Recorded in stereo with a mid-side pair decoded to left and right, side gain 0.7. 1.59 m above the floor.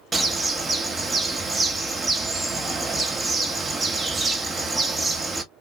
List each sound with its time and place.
0.1 s a bird: 20° right, 0.9 m